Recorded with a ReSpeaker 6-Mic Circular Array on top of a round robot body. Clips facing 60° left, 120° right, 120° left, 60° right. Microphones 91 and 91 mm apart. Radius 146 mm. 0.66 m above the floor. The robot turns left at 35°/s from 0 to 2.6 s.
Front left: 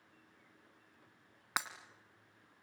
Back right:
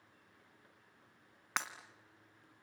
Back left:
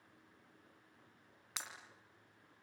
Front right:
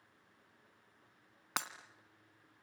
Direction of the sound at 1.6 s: 25° right.